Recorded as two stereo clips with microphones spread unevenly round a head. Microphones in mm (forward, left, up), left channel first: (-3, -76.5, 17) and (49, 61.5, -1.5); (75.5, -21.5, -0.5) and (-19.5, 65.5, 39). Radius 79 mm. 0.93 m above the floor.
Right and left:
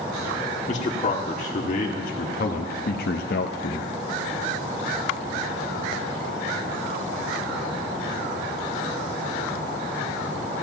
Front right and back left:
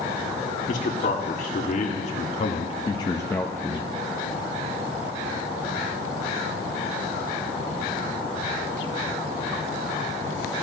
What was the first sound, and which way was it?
A man speaking, 65° right.